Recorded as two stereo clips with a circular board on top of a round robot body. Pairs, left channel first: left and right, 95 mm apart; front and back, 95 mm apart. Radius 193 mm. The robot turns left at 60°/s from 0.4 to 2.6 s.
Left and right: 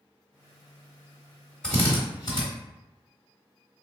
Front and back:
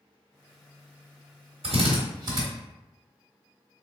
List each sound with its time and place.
1.6 s a drill: 170° left, 1.2 m; by 2.4 s 125° left, 1.2 m